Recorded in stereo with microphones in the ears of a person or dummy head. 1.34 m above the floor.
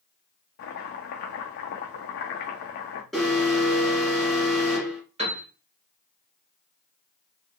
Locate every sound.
0.6 s chopping: 50° left (ahead or behind), 0.5 m
3.1 s an alarm: 5° left (ahead or behind), 1.5 m
5.2 s a piano: 25° right (ahead or behind), 1.3 m